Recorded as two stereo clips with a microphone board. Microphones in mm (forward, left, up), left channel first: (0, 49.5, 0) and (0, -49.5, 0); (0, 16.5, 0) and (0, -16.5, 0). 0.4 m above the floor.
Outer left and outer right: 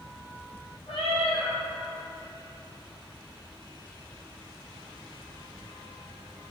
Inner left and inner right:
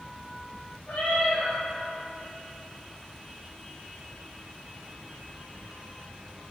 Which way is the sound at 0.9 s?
80° left.